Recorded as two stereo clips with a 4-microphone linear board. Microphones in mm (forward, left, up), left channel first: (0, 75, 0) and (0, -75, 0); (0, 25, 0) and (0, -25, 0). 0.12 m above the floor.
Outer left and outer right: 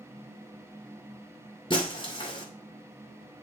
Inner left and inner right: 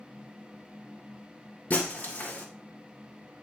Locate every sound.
1.7 s breaking glass: 35° left (ahead or behind), 1.5 m